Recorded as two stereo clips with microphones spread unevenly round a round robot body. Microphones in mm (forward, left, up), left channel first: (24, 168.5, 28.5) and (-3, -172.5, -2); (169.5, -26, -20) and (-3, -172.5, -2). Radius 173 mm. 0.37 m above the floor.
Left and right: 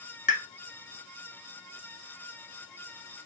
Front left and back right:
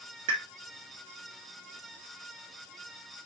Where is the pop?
150° left, 1.0 m.